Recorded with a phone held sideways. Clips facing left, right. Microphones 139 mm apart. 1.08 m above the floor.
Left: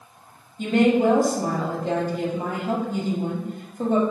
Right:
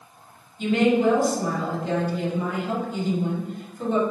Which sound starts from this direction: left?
A woman speaking, at 0.6 s.